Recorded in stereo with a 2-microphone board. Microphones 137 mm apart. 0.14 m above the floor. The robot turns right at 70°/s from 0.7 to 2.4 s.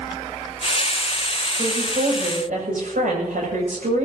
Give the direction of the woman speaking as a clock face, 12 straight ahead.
5 o'clock.